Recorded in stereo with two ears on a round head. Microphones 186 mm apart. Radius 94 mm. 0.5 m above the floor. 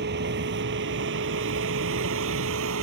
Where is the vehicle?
60° right (ahead or behind); by 2.8 s 80° right.